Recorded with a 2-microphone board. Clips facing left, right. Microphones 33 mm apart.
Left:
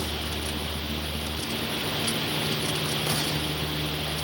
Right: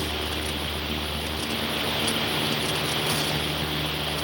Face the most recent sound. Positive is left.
No sound to turn to.